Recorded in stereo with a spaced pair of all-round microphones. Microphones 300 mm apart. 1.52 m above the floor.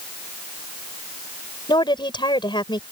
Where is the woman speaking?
15° left (ahead or behind).